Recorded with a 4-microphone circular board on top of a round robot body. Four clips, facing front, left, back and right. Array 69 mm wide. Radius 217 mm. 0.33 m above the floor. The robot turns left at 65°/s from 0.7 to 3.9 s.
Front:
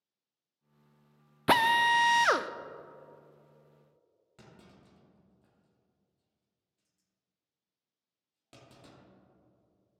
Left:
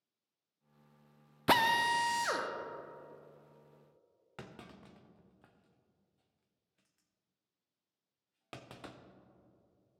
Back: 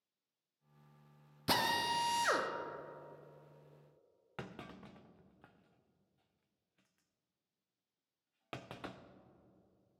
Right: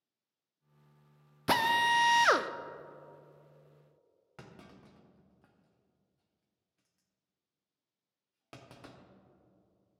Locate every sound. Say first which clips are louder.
1.5 s a drill: right 1 dB, front 10 dB; 10° left, 0.6 m; by 2.5 s 55° right, 0.6 m
4.4 s a clunk: left 2 dB, back 8 dB; 170° left, 0.7 m